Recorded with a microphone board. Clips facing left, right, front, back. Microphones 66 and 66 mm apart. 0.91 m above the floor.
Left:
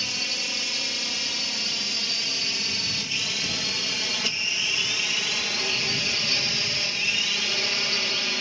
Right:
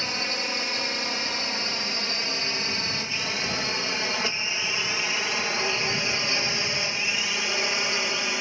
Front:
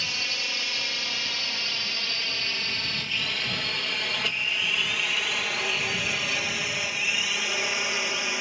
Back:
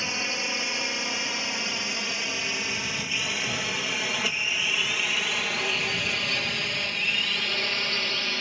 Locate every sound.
0.0 s a drone: 120° right; by 8.4 s 55° right